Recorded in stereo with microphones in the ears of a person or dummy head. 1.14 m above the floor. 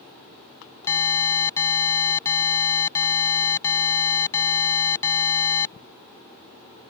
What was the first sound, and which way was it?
An alarm, 20° left (ahead or behind).